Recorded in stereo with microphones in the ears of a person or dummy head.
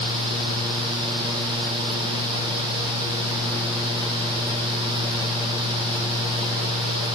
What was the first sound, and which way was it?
Only background noise.